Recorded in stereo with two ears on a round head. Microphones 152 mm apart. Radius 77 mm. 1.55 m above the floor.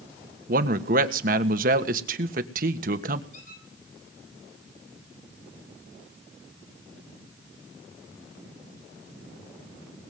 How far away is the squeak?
About 8.5 m.